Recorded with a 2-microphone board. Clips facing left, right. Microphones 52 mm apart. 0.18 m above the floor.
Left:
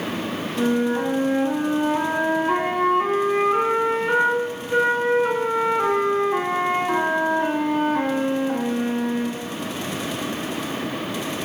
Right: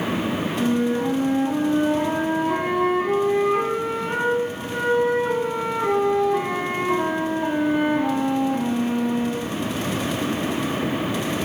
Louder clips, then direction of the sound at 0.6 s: Left 2 dB; 50° left (ahead or behind).